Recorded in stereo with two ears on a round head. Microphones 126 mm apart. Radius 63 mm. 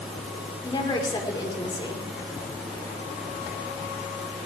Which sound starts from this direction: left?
A woman speaking, at 0.6 s.